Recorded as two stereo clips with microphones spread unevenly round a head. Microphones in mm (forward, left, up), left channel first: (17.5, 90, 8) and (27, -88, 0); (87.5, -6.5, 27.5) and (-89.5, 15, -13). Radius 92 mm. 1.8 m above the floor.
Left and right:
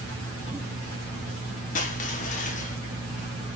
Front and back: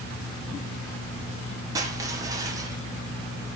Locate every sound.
1.8 s crushing: 95° left, 0.9 m